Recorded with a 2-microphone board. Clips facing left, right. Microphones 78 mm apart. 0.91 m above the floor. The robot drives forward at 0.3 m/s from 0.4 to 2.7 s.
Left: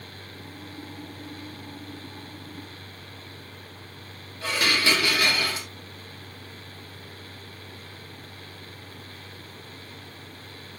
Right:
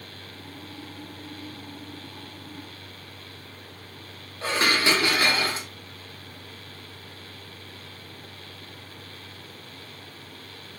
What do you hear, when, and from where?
4.4 s dishes clattering: 30° right (ahead or behind), 0.8 m